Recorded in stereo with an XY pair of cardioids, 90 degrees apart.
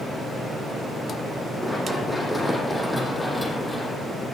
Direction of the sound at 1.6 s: 10° left.